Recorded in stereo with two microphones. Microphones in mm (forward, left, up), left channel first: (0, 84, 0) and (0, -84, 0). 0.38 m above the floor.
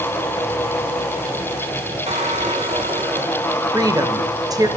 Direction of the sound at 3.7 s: 20° right (ahead or behind).